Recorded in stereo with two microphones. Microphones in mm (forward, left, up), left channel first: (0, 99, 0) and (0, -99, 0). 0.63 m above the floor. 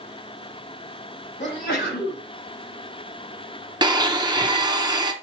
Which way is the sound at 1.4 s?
55° left (ahead or behind).